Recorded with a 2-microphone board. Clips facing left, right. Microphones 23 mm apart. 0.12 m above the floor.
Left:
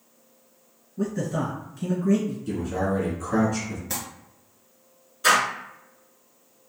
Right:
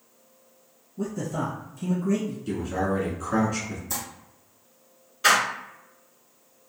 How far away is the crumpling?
About 1.1 m.